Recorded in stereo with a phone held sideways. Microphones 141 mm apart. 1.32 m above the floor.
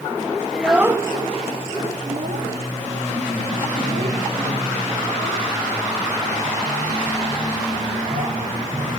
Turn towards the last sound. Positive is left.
turn(degrees=-75)  # may be behind; listen again after turning